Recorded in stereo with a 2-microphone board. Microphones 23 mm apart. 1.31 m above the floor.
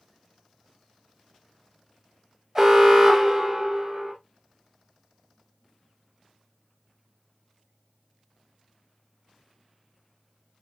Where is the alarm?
20° right (ahead or behind), 1.2 m.